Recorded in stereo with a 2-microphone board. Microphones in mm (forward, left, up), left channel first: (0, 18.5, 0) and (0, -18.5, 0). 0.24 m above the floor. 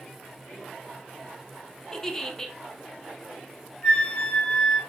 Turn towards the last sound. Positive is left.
turn(degrees=35)  # may be behind; listen again after turning